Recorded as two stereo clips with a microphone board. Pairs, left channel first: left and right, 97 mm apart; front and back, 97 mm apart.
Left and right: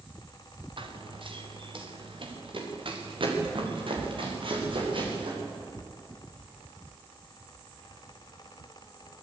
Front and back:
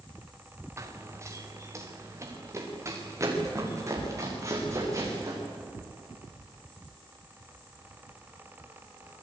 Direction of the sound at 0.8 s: 120° right.